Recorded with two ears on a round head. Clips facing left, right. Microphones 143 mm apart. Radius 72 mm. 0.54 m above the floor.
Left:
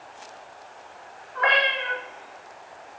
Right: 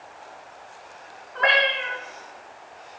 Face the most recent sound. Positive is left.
turn(degrees=-45)  # may be behind; listen again after turning